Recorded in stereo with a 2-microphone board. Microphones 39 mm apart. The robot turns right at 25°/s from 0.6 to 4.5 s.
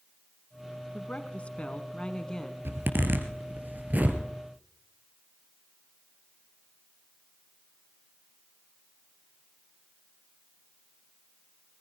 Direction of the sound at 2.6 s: 70° right (ahead or behind).